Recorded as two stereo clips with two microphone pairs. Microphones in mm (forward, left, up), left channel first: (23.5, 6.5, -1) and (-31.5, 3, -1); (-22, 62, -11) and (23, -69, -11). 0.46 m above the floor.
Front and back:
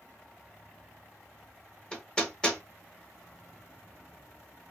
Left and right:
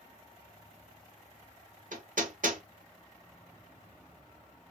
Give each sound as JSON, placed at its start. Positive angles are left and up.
{"t": 1.9, "sound": "hammering", "azimuth_deg": -70, "distance_m": 0.9}